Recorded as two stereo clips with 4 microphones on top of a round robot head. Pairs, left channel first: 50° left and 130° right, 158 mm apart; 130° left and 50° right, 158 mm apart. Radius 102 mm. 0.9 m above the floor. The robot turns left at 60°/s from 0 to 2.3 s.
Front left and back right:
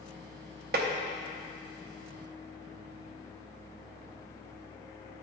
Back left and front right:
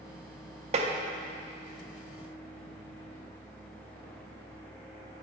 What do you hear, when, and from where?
0.7 s tapping: 100° right, 0.6 m; by 0.9 s 110° right, 0.6 m